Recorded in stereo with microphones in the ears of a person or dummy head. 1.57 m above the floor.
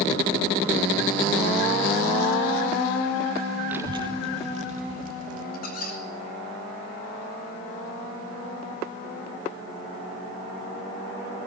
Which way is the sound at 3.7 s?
10° right (ahead or behind).